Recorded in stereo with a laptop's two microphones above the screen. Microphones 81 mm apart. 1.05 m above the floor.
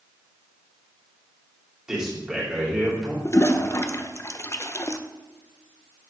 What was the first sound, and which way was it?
A man speaking, 10° right (ahead or behind).